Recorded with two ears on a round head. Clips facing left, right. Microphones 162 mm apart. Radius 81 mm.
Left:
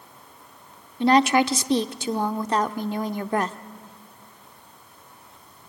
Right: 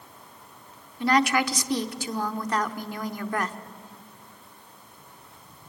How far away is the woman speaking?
About 0.8 m.